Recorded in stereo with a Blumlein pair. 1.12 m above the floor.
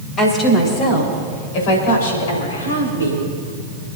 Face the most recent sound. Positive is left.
turn(degrees=75)